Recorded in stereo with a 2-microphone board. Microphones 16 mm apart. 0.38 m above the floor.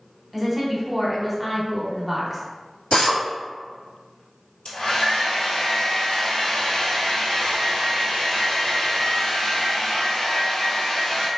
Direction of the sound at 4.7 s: 75° left (ahead or behind).